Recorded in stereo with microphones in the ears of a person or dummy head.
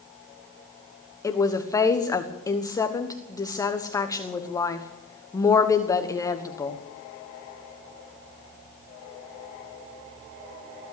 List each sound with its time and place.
1.2 s a woman speaking: 15° left (ahead or behind), 1.2 m